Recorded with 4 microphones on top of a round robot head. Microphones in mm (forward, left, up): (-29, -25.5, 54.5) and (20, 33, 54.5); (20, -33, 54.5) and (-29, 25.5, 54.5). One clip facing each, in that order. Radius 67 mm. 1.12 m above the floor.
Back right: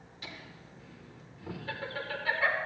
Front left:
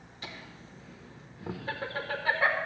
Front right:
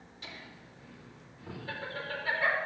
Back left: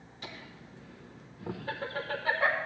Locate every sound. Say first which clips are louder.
0.2 s laughter: front left 2 dB, back left 2 dB; 100° left, 1.2 m